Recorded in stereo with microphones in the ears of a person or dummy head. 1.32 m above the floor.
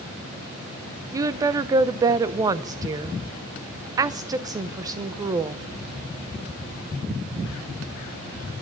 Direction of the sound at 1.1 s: 20° right (ahead or behind).